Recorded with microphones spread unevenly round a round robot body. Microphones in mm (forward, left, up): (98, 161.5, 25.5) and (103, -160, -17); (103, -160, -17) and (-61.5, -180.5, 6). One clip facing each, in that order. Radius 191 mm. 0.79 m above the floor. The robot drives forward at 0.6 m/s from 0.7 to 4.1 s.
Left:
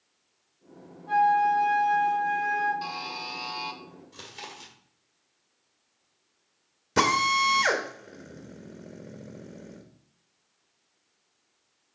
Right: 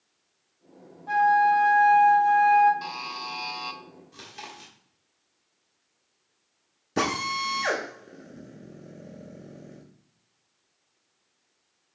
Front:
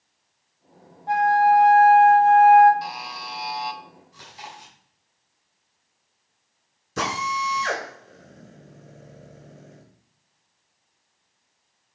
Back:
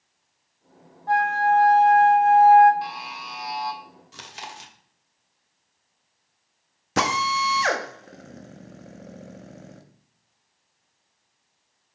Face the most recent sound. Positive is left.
turn(degrees=170)